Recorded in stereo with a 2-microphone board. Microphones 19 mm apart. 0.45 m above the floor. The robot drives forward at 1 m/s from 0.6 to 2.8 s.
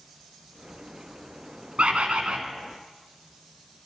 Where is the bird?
85° right, 1.0 m; by 2.4 s 60° right (ahead or behind), 1.2 m.